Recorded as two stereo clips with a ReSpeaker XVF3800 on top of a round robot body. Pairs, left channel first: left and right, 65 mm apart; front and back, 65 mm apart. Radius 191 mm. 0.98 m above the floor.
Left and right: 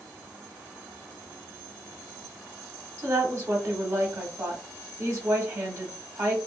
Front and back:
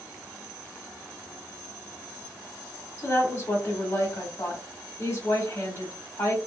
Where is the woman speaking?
45° right, 1.2 m.